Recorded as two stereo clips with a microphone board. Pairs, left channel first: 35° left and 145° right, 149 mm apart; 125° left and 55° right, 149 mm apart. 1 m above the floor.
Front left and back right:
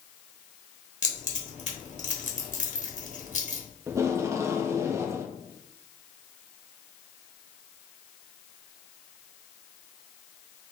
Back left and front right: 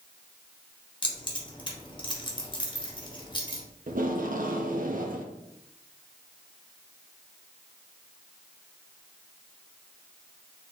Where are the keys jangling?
65° left, 1.1 m.